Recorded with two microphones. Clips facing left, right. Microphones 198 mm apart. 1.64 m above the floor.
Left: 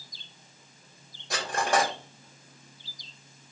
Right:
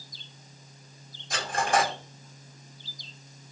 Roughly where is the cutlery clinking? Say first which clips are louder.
Even; left.